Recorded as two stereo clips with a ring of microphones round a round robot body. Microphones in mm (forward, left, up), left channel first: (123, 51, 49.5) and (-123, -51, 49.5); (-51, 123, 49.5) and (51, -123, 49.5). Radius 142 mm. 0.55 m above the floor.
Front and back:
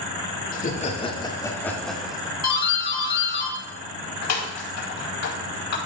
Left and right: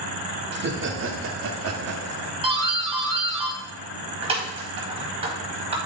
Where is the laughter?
25° right, 1.5 m; by 2.3 s 75° right, 1.8 m.